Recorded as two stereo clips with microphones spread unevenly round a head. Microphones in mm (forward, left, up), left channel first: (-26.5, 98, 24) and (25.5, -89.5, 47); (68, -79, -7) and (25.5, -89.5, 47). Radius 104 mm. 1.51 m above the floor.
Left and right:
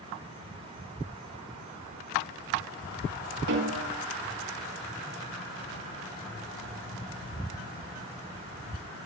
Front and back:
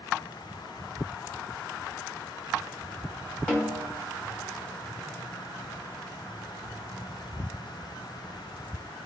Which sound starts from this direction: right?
A snare drum, at 3.5 s.